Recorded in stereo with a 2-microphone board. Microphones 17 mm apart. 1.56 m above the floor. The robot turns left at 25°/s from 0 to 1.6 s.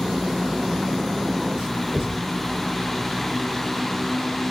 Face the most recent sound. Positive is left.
turn(degrees=-55)  # may be behind; listen again after turning